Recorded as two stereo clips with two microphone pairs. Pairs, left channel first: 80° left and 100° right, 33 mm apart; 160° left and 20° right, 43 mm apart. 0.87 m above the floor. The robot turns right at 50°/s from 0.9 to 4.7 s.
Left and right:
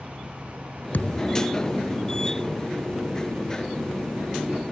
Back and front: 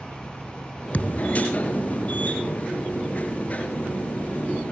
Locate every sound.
0.9 s a thud: 100° left; by 1.5 s 130° left